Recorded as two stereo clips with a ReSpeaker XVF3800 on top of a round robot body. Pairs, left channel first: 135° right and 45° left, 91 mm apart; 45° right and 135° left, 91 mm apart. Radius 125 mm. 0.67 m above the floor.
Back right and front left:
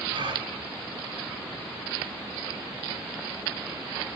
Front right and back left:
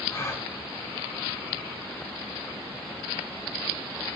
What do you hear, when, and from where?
0.1 s a gasp: 15° left, 3 m